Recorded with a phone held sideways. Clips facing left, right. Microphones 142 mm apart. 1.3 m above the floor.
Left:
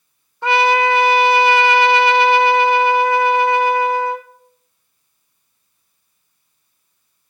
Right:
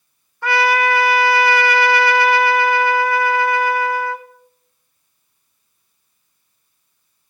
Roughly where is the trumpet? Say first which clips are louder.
Left 2 dB; left.